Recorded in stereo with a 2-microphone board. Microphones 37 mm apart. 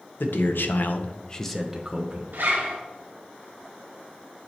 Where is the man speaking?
80° left, 1.0 m; by 2.2 s 25° right (ahead or behind), 0.9 m.